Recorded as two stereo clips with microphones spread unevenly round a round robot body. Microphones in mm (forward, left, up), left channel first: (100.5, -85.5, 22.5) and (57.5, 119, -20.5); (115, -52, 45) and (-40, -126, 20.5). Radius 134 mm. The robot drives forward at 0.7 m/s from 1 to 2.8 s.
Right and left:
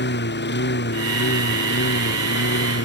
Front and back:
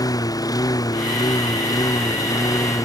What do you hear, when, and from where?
0.0 s a lawn mower: 45° right